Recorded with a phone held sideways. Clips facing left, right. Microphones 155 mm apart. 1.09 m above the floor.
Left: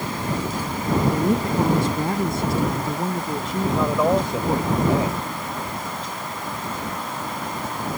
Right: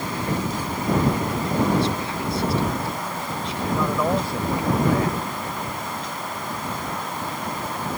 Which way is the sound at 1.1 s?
50° left (ahead or behind).